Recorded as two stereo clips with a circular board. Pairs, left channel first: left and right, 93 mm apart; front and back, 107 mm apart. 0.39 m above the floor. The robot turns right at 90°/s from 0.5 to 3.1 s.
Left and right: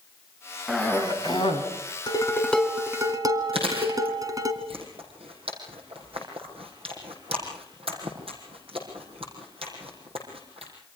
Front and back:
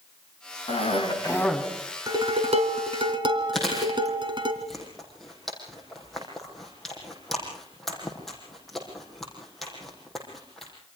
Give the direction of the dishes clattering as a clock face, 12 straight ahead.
8 o'clock.